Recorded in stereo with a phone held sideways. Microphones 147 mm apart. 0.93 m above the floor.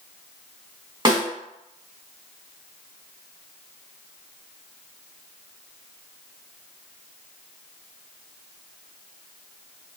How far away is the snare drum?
About 1.0 m.